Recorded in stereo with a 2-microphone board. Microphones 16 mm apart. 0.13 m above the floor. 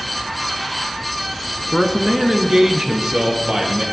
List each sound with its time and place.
1.7 s a man speaking: 15° right (ahead or behind), 1.1 m; by 3.9 s 50° right (ahead or behind), 2.5 m